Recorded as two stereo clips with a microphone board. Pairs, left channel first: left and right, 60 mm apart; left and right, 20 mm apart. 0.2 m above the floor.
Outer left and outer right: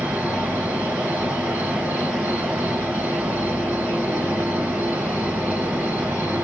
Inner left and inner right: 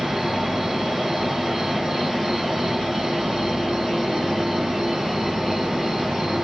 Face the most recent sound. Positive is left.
turn(degrees=-35)  # may be behind; listen again after turning